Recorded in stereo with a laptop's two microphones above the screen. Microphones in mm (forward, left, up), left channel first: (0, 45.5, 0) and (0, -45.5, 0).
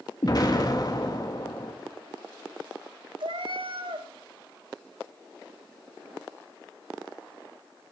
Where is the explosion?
45° left (ahead or behind), 1.5 m.